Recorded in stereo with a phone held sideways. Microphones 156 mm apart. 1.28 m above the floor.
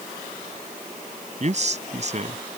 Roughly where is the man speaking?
Right.